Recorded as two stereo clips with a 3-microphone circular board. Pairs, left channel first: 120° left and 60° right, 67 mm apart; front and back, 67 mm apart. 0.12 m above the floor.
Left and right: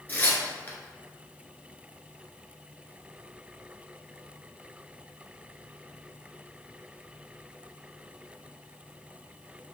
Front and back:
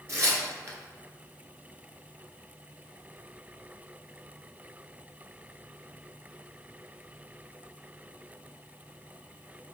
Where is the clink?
No clink in this recording.